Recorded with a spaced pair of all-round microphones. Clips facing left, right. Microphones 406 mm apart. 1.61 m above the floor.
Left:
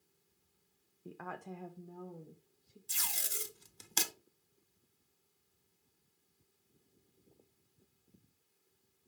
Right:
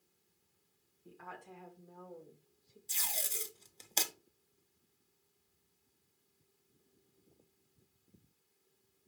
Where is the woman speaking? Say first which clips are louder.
Left 6 dB; 75° left (ahead or behind), 0.6 m; by 2.8 s 25° left (ahead or behind), 1.1 m.